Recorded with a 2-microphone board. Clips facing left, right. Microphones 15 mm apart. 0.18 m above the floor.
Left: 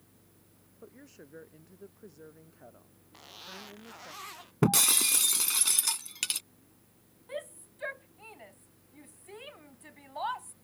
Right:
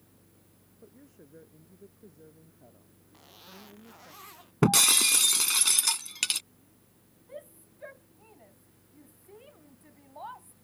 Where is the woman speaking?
65° left (ahead or behind).